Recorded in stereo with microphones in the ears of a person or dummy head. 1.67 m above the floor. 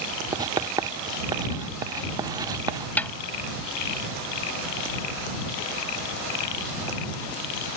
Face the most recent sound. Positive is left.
turn(degrees=15)  # may be behind; listen again after turning